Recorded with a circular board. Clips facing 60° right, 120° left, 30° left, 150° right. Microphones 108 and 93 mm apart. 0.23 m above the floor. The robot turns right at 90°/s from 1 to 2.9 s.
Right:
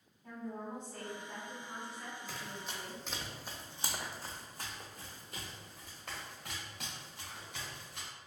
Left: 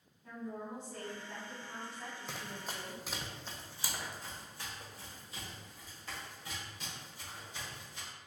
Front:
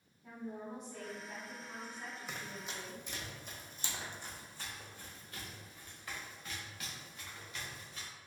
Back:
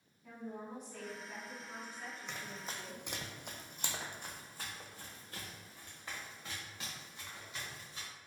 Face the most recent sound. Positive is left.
turn(degrees=-85)